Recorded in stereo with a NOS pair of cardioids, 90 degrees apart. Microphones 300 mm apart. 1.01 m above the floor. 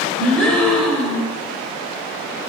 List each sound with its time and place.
0.2 s a gasp: 5° left, 4.5 m